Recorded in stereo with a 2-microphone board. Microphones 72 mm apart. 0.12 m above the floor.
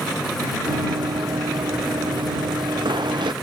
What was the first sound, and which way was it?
Running footsteps, 70° right (ahead or behind).